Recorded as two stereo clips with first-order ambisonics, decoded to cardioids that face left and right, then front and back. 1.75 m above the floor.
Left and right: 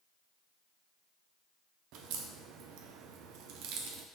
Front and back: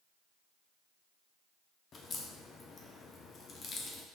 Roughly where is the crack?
Ahead right.